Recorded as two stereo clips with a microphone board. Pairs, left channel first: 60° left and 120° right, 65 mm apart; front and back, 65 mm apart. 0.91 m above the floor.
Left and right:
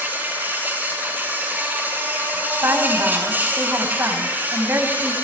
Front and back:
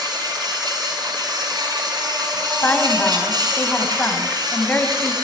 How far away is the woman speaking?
About 5 m.